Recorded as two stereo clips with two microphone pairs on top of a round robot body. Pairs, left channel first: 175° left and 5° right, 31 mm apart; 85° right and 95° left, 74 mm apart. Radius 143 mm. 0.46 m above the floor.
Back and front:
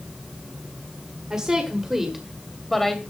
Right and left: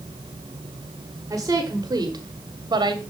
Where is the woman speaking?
45° left, 1.6 m; by 3.0 s 90° left, 1.4 m.